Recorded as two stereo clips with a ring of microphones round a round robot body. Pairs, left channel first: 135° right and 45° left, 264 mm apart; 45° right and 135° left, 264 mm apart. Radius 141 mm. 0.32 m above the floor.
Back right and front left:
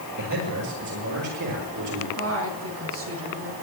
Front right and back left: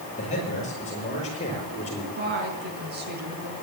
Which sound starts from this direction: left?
A woman speaking, at 2.2 s.